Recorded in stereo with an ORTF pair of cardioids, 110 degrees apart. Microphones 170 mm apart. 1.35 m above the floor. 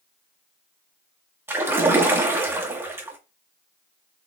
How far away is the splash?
About 1.2 m.